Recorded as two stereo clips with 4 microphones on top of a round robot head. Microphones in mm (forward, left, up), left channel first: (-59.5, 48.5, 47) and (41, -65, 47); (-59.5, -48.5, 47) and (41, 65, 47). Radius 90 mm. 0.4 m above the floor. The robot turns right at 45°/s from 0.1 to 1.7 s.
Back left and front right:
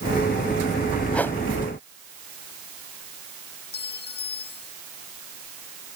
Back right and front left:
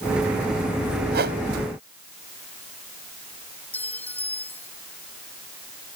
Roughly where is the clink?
Behind left.